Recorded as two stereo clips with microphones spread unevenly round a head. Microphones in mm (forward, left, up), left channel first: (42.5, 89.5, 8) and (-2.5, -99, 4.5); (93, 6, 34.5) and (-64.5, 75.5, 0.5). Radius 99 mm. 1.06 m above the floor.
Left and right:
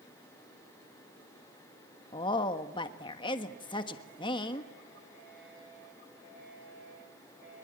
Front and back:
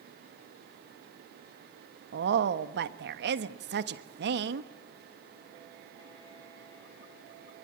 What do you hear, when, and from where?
2.1 s a woman speaking: 145° left, 1.3 m